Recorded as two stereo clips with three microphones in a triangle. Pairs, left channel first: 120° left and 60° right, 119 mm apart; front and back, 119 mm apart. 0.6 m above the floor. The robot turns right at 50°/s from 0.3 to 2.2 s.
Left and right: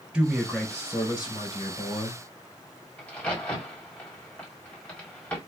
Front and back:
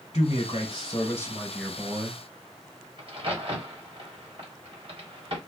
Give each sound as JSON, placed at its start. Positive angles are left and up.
{"t": 0.1, "sound": "a man speaking", "azimuth_deg": 25, "distance_m": 2.0}
{"t": 3.0, "sound": "a crack", "azimuth_deg": -165, "distance_m": 1.7}